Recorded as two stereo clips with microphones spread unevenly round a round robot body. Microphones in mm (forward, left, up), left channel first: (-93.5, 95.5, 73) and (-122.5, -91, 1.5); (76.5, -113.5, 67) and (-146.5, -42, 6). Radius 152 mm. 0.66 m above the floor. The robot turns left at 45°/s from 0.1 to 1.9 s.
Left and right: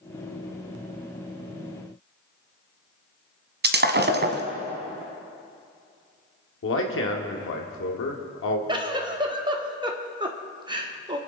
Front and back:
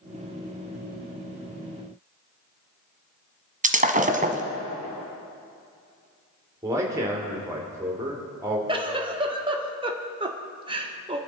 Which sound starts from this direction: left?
A man speaking, at 6.6 s.